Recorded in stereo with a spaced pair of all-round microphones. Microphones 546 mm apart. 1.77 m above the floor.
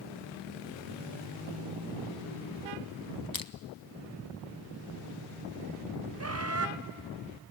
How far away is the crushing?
About 0.8 m.